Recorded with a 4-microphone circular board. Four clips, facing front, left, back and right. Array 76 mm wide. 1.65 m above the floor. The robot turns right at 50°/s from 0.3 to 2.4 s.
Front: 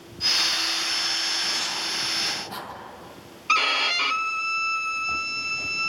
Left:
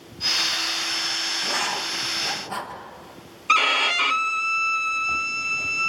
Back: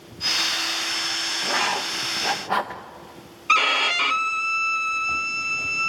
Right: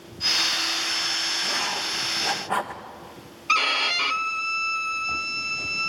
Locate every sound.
1.4 s writing: 155° left, 1.7 m; by 2.8 s 155° right, 1.7 m
3.5 s a violin: 130° left, 0.6 m